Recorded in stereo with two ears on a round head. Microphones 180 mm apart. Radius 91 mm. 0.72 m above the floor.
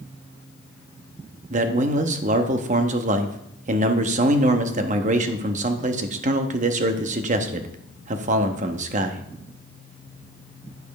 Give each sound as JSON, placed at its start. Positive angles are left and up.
{"t": 1.5, "sound": "a man speaking", "side_deg": -35, "distance_m": 0.8}